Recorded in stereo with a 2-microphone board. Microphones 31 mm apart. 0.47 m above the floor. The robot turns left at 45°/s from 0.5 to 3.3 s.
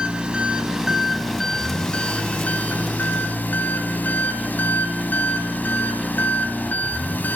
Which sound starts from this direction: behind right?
An engine running, at 0.0 s.